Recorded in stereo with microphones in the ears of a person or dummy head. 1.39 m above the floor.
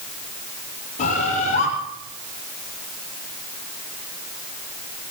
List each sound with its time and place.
1.0 s a bird: 45° left (ahead or behind), 7 m